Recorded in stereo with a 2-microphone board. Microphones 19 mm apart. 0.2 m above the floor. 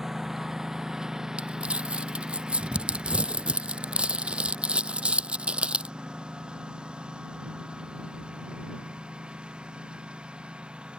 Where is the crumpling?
80° right.